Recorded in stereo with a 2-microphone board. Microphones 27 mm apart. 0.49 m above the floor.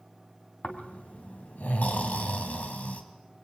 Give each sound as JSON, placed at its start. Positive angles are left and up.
{"t": 0.6, "sound": "snoring", "side_deg": 75, "distance_m": 3.0}